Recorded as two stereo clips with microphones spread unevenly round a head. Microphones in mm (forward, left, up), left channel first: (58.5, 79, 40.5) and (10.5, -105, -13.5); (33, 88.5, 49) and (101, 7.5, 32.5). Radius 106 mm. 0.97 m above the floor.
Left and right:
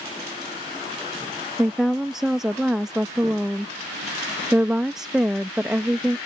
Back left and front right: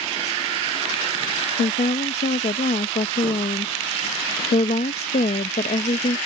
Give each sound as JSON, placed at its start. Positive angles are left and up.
{"t": 1.6, "sound": "a woman speaking", "azimuth_deg": 170}